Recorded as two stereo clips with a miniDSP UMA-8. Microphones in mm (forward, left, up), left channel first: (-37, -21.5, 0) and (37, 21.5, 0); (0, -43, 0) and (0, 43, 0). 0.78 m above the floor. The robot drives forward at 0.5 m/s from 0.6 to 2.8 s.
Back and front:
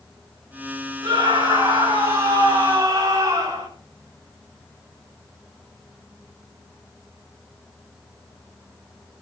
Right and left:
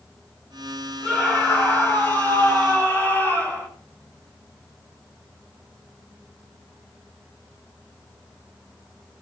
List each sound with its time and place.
1.0 s a scream: 20° right, 8 m